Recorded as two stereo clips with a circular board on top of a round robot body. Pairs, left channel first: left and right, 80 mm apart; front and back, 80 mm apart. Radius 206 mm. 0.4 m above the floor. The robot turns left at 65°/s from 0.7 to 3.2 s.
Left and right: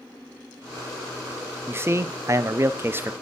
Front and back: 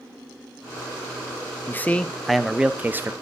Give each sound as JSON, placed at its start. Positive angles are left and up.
{"t": 1.7, "sound": "a man speaking", "azimuth_deg": -45, "distance_m": 0.8}